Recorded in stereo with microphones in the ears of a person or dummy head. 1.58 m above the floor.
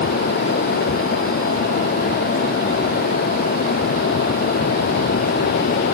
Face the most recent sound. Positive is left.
No sound to turn to.